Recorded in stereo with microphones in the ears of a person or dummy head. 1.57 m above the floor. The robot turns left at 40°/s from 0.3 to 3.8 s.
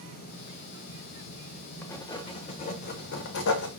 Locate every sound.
1.8 s writing: 165° left, 0.9 m; by 3.7 s 90° left, 0.9 m